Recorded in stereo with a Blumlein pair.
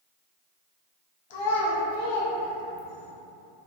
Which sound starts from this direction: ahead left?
A child speaking, at 1.3 s.